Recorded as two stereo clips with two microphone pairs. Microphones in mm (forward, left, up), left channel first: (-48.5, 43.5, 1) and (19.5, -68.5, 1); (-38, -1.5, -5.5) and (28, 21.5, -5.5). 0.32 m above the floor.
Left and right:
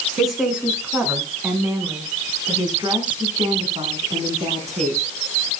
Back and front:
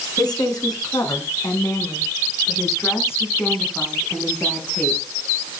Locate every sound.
0.2 s a woman speaking: 145° right, 4.5 m; by 5.0 s 85° right, 4.5 m